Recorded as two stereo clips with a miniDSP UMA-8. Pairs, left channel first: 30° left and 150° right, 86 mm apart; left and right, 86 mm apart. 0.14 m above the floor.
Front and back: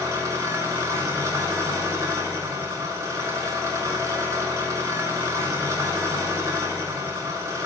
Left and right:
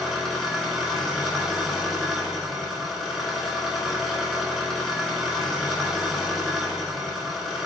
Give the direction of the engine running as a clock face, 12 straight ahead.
6 o'clock.